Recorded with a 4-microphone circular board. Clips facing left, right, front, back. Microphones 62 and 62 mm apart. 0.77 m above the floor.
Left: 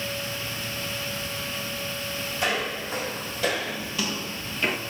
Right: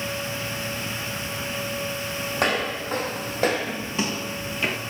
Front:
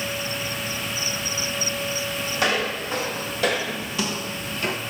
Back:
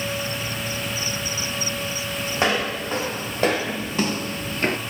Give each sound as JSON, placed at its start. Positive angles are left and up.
{"t": 2.3, "sound": "footsteps", "azimuth_deg": -120, "distance_m": 2.5}